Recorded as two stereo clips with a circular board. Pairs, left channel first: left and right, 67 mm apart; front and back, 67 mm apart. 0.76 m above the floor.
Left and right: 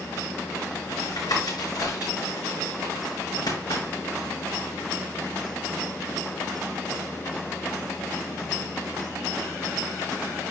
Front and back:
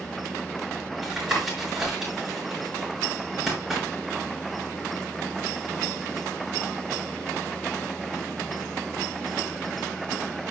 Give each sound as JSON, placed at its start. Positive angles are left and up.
{"t": 1.0, "sound": "tapping", "azimuth_deg": 100, "distance_m": 6.5}